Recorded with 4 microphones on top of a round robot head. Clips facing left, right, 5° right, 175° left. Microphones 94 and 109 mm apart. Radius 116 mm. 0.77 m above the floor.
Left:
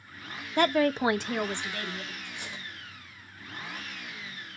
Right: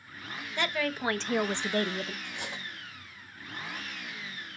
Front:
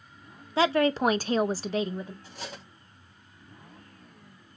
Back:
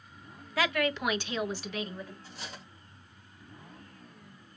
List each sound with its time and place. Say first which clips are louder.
0.6 s a woman speaking: left 8 dB, front 6 dB; 55° left, 0.9 m; by 2.1 s 70° right, 0.8 m
2.2 s cutlery clinking: right 2 dB, front 4 dB; 50° right, 4 m